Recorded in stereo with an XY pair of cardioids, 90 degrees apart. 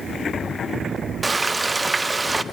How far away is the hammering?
No hammering in this recording.